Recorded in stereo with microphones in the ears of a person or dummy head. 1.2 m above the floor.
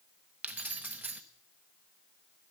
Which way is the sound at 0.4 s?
5° right (ahead or behind).